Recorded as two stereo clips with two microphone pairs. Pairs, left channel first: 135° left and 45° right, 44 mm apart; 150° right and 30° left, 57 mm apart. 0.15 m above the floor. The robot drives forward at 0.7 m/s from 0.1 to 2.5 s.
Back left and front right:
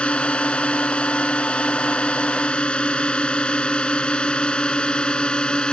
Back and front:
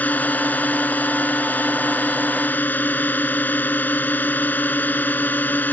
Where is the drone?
Straight behind; by 5.8 s 175° right.